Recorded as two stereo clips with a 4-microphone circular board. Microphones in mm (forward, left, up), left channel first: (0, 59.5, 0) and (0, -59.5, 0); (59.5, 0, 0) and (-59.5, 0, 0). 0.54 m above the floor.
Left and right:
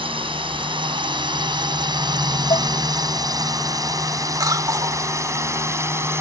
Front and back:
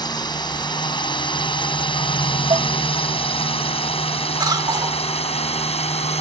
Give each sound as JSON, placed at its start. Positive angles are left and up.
{"t": 0.0, "sound": "a drone", "azimuth_deg": -50}
{"t": 2.5, "sound": "dishes clattering", "azimuth_deg": 130}
{"t": 4.4, "sound": "a cough", "azimuth_deg": -140}